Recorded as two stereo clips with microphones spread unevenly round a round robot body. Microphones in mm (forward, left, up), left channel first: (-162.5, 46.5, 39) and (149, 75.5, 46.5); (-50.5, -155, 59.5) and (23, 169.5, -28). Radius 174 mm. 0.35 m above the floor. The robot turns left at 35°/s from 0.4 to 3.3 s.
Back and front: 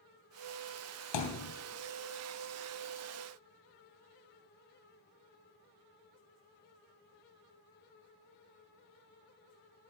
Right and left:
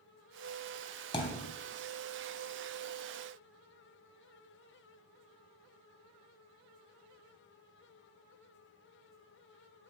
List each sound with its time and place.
1.1 s a thud: 175° right, 3 m; by 1.5 s 170° left, 3 m